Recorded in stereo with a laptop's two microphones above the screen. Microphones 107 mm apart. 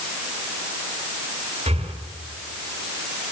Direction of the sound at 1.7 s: 80° right.